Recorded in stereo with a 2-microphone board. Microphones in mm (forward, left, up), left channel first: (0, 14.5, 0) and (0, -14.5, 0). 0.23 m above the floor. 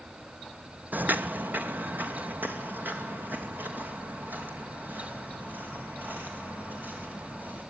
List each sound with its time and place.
0.9 s footsteps: 70° right (ahead or behind), 0.5 m; by 7.6 s 80° right, 7 m